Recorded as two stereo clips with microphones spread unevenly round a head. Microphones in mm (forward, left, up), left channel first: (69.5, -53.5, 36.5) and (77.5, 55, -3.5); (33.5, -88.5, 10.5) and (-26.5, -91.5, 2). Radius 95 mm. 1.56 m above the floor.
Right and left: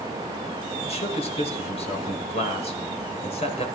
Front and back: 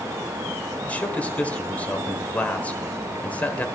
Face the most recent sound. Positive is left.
turn(degrees=-65)